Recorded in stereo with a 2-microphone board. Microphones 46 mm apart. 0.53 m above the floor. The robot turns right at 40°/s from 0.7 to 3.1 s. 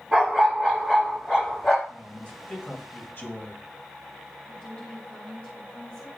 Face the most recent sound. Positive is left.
turn(degrees=25)  # may be behind; listen again after turning